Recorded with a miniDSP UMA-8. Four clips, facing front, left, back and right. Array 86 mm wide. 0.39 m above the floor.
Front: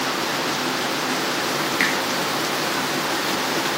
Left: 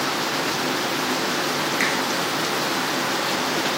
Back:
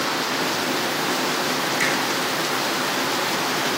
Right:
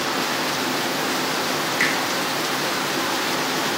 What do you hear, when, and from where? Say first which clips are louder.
1.8 s a finger snap: right 2 dB, front 2 dB; 10° right, 0.8 m